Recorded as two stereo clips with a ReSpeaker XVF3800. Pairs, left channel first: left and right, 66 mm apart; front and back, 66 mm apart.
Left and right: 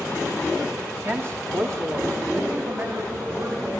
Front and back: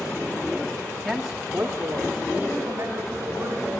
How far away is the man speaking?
About 1.4 m.